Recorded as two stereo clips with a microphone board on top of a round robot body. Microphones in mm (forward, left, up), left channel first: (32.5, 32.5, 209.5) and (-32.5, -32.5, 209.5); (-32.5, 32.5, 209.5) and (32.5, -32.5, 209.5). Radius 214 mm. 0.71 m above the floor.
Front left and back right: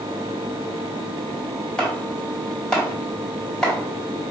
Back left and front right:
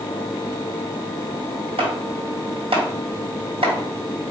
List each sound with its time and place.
1.8 s chopping: 35° right, 1.8 m